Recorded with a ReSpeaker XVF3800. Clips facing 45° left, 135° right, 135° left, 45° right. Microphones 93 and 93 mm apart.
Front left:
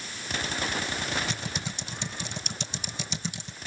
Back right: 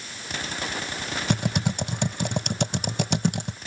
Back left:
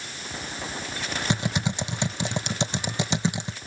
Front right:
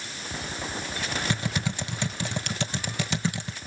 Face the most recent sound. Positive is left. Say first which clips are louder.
# back right 10 dB, back left 3 dB
turn(degrees=-160)